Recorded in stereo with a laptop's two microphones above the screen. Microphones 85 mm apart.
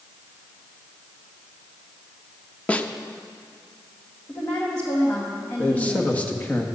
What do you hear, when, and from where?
2.7 s a snare drum: 15° left (ahead or behind), 0.5 m
4.3 s a woman speaking: 30° left (ahead or behind), 1.2 m
5.6 s a man speaking: 20° left (ahead or behind), 1.5 m